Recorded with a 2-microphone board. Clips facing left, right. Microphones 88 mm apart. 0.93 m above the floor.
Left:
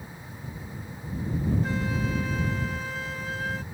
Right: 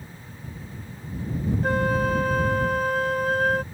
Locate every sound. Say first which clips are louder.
1.6 s a flute: right 7 dB; 55° right (ahead or behind)